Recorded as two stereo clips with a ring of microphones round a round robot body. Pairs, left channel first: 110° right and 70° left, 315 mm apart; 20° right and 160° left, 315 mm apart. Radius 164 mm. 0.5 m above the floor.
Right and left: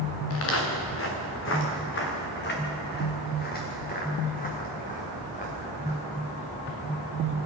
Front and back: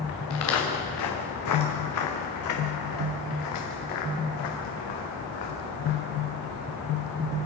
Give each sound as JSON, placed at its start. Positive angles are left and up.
{"t": 0.3, "sound": "footsteps", "azimuth_deg": -65, "distance_m": 4.5}